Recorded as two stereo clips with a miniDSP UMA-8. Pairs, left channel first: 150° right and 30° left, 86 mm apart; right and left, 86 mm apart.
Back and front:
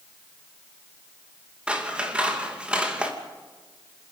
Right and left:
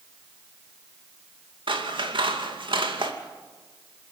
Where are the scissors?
110° left, 2.5 m.